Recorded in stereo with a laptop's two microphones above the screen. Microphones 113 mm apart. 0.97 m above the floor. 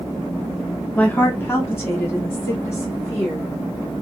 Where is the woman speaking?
15° left (ahead or behind), 0.7 m; by 4.0 s 25° left (ahead or behind), 2 m.